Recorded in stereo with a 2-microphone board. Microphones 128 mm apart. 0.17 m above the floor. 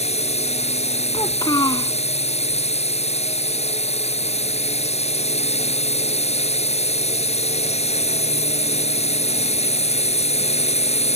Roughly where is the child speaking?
Left.